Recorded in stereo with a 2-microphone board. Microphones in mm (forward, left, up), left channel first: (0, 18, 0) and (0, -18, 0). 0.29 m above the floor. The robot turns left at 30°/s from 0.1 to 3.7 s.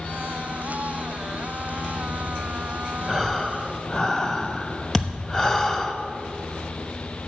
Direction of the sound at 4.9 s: 10° left (ahead or behind).